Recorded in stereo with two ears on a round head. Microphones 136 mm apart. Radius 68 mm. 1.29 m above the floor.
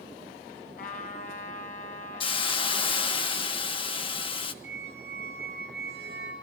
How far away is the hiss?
About 1.4 m.